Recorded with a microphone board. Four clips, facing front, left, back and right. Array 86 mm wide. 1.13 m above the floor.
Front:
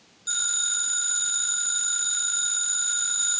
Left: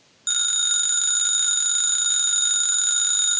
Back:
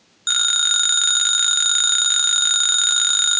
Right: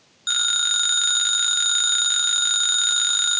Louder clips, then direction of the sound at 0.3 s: Right 6 dB, back 9 dB; 160° right.